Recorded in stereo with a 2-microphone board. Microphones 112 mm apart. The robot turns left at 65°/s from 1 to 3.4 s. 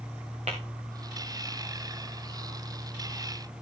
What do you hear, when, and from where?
0.5 s tapping: 80° right, 4.5 m